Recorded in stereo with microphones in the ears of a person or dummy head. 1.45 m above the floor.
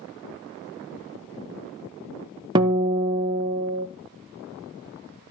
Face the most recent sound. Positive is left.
turn(degrees=-25)  # may be behind; listen again after turning